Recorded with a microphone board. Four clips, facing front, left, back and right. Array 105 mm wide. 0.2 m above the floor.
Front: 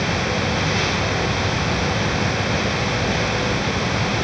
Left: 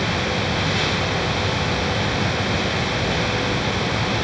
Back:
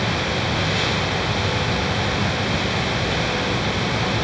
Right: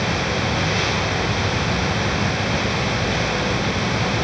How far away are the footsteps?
No footsteps in this recording.